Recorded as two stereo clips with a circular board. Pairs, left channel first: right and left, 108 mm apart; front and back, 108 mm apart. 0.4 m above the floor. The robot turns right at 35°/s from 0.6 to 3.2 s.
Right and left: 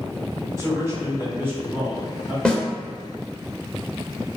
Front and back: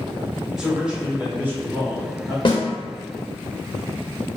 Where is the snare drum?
10° right, 0.5 m; by 2.6 s 5° right, 0.5 m.